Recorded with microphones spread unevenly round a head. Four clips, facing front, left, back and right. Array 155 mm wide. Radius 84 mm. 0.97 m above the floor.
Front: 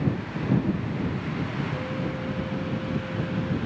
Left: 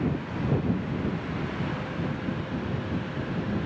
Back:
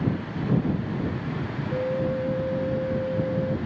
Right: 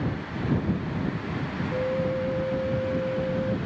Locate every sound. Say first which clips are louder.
1.7 s a flute: right 6 dB, back 5 dB; 145° right